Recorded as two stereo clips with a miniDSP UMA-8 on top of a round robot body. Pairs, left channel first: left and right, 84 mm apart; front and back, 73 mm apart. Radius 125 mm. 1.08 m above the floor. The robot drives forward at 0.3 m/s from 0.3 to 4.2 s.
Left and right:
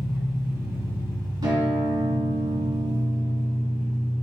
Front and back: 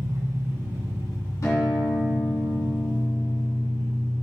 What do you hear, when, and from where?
0.0 s an engine running: 140° right, 3 m; by 4.2 s 150° right, 4 m
1.4 s a guitar: 50° right, 2.5 m; by 4.1 s 70° right, 2.0 m